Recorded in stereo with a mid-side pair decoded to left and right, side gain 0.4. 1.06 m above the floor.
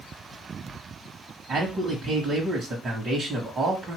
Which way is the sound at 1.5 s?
60° right.